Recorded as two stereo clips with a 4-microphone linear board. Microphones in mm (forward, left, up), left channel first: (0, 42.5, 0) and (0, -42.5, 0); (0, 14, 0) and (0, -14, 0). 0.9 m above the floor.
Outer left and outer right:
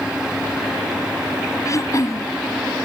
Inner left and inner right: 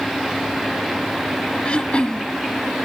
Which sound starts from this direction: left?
Throat clearing, at 1.6 s.